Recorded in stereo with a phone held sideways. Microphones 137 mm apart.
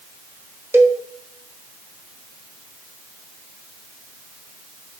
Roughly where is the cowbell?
Centre.